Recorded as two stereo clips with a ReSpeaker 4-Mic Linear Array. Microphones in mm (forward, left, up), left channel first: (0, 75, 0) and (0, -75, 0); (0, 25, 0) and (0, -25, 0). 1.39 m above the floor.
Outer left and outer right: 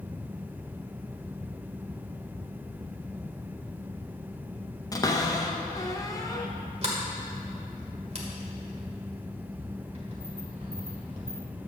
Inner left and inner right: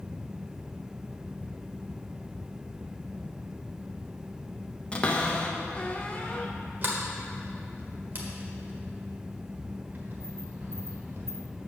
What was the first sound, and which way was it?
A cupboard door, 25° left (ahead or behind).